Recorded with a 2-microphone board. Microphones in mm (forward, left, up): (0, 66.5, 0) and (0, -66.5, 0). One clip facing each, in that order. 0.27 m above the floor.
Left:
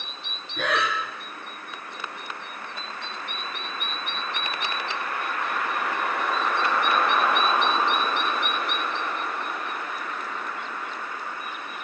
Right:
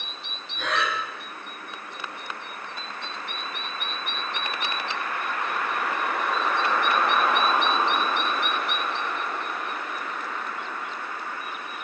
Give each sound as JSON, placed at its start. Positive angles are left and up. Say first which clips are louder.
{"t": 0.6, "sound": "breathing", "louder": "left 2 dB", "side_deg": 60, "distance_m": 4.0}